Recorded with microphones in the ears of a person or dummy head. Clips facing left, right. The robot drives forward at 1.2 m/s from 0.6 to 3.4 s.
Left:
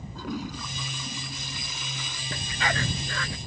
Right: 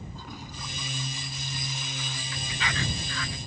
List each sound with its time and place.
0.1 s a toilet flushing: 65° left (ahead or behind); by 2.2 s 80° left
2.3 s a dog barking: 40° left (ahead or behind); by 3.4 s 50° left (ahead or behind)